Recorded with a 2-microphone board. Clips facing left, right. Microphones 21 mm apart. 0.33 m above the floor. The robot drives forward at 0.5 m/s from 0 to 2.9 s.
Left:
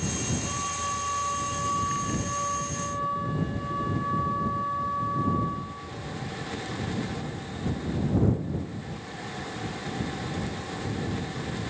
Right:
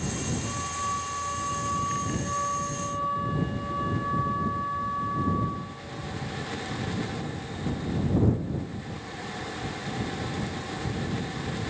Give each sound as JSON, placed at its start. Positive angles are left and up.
{"t": 0.4, "sound": "a flute", "side_deg": 15, "distance_m": 3.0}